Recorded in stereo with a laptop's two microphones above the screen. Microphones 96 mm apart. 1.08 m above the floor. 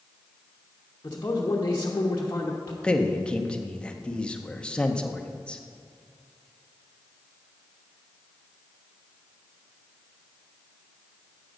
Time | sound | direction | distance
1.0 | a man speaking | 35° left (ahead or behind) | 0.9 m
2.8 | a man speaking | 10° left (ahead or behind) | 0.8 m